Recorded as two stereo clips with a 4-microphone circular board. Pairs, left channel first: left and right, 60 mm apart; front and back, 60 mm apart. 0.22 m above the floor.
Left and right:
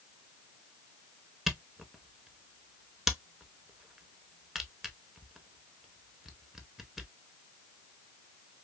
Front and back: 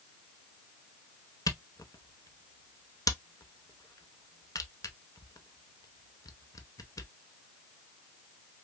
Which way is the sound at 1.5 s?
5° right.